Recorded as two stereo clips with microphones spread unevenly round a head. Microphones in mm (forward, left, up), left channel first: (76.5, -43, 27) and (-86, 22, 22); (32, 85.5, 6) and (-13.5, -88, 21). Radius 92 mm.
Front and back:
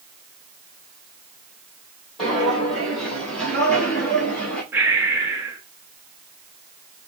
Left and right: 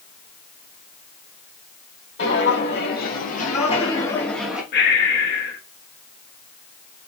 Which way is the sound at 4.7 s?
80° left.